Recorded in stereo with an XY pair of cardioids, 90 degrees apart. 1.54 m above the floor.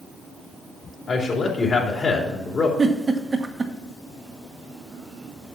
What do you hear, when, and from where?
1.1 s a man speaking: 45° left, 3 m
2.8 s a giggle: 35° right, 1.4 m